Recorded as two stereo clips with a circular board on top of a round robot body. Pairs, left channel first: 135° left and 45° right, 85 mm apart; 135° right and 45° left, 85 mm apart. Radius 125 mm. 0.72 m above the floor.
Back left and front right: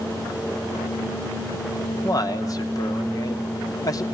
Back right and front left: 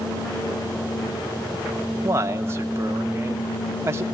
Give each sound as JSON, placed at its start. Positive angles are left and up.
{"t": 2.0, "sound": "a man speaking", "azimuth_deg": 95, "distance_m": 2.5}